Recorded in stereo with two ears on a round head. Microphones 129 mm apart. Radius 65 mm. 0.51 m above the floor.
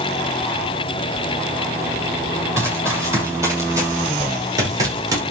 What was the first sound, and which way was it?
Running footsteps, 20° right (ahead or behind).